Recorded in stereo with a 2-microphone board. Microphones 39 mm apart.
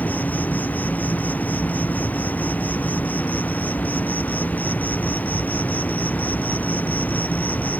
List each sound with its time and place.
0.0 s an insect: 55° left (ahead or behind)